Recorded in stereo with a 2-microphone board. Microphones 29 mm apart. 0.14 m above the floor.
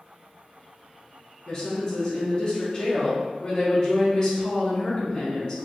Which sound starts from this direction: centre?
A woman speaking, at 1.5 s.